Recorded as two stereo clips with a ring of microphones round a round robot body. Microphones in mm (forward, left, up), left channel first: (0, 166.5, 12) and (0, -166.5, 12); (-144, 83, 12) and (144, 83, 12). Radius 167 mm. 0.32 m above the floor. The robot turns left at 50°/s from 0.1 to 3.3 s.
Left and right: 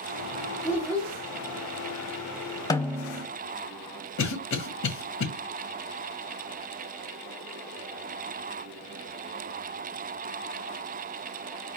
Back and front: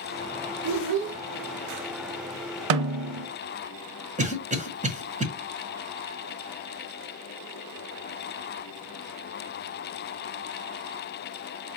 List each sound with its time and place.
0.6 s a child speaking: straight ahead, 0.7 m; by 1.2 s 30° right, 0.7 m
2.7 s a snare drum: 10° left, 0.6 m; by 3.3 s 20° right, 0.6 m
4.2 s a cough: 60° left, 1.6 m